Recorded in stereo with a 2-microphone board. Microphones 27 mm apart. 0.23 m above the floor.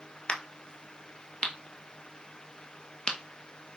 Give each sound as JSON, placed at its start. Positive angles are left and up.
{"t": 0.3, "sound": "a crack", "side_deg": 40, "distance_m": 1.4}